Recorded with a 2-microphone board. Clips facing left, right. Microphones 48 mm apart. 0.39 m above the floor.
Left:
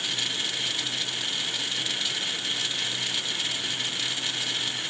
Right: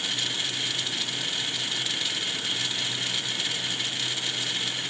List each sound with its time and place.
Only background noise.